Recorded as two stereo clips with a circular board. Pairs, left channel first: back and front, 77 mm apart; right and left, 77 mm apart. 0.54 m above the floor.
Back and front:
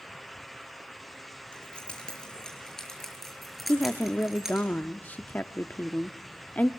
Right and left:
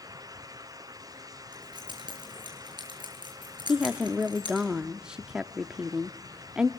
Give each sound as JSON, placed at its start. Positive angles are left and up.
{"t": 1.5, "sound": "keys jangling", "azimuth_deg": 105, "distance_m": 7.0}
{"t": 3.7, "sound": "a woman speaking", "azimuth_deg": 155, "distance_m": 0.6}